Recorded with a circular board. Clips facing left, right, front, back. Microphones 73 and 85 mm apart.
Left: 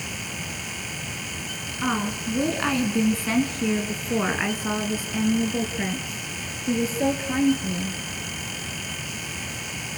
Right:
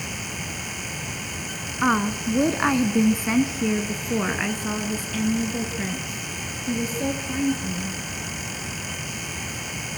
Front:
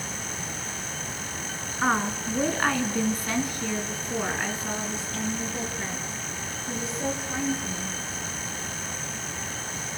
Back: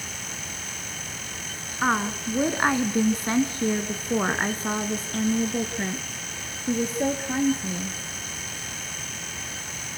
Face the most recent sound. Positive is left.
turn(degrees=140)